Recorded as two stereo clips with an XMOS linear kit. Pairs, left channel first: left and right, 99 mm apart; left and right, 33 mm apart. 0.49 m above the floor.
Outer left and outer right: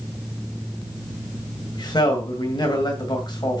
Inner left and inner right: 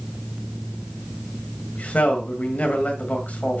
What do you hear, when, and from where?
1.8 s a man speaking: 45° left (ahead or behind), 2 m